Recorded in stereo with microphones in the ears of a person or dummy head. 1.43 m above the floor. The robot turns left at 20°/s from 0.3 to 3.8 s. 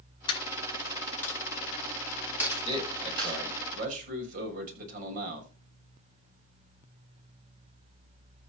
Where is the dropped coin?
30° left (ahead or behind), 7.5 m; by 3.4 s 35° right (ahead or behind), 7.5 m.